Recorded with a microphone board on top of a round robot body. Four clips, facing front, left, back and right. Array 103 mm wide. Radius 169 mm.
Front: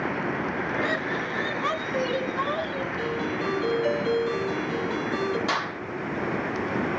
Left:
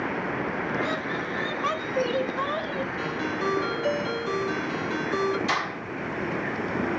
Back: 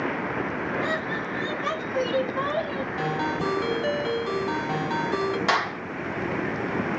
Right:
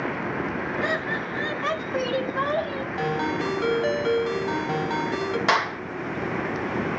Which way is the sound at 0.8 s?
65° right.